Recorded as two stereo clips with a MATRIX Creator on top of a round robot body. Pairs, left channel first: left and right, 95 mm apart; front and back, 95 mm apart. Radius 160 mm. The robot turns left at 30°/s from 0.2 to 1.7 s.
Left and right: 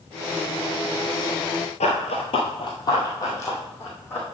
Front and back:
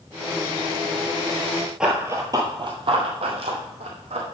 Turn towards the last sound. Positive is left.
turn(degrees=160)